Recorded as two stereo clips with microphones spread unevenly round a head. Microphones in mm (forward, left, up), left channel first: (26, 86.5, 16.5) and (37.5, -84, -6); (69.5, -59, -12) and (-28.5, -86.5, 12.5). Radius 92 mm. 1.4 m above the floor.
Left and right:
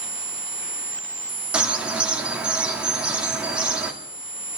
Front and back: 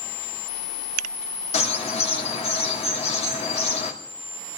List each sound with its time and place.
1.5 s a bird: straight ahead, 2.5 m